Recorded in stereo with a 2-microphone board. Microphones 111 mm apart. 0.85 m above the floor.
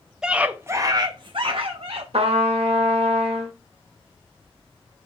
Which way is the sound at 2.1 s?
75° right (ahead or behind).